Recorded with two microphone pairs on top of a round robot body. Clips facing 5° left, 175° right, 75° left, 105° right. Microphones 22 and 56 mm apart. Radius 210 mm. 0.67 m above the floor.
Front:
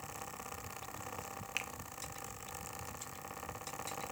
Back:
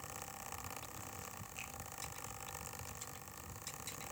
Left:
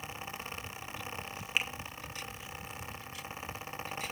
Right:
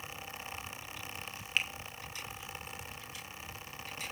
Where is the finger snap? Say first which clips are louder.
Front 10 dB, even; 5° right, 2 m.